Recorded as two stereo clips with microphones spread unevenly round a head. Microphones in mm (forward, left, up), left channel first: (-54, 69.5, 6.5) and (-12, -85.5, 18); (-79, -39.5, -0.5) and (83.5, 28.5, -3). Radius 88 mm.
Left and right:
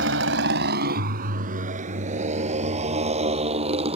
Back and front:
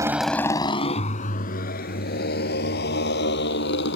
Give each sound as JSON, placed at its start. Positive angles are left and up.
{"t": 0.0, "sound": "a motorcycle", "azimuth_deg": -50}